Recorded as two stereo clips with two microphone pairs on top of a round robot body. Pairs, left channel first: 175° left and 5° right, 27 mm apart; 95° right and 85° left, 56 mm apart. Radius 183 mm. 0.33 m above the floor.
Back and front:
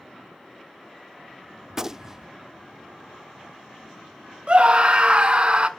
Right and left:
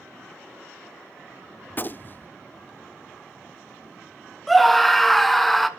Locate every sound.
1.7 s a gunshot: 70° right, 0.7 m
4.5 s a scream: 25° right, 1.4 m